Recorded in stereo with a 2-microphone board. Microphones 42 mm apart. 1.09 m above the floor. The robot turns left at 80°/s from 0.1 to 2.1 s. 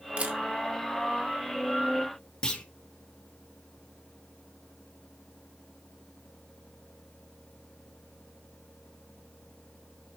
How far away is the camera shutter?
About 1.5 m.